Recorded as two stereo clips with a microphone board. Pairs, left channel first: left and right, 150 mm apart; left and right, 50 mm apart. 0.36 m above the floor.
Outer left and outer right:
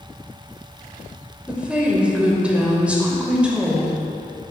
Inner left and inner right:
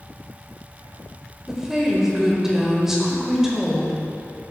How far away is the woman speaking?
About 1.1 m.